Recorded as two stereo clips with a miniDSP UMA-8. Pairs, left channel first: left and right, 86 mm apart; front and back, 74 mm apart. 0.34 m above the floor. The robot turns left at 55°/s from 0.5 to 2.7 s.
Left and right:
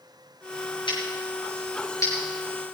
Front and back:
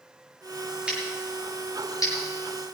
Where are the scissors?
100° left, 7 m; by 2.1 s 35° left, 7 m.